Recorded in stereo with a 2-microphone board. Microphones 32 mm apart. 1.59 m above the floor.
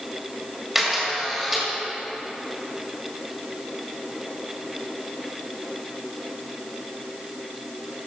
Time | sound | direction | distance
0.8 | a camera shutter | 10° right (ahead or behind) | 2.5 m